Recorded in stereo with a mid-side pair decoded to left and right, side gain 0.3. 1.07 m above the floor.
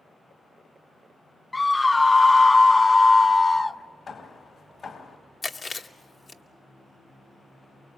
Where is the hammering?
65° left, 3 m.